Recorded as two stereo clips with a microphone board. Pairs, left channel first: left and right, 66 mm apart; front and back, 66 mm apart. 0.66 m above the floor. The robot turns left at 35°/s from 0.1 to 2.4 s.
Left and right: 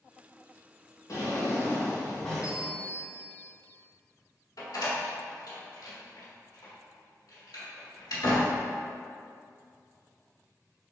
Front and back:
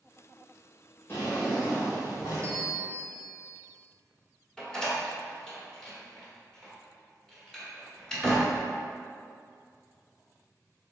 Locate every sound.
1.1 s a drawer: 55° left, 1.5 m; by 2.5 s 10° left, 1.5 m
2.4 s a bell: 155° right, 0.9 m
4.6 s a door slam: 80° left, 1.1 m